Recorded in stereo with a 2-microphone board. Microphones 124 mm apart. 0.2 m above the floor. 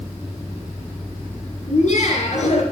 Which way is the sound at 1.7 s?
65° left (ahead or behind).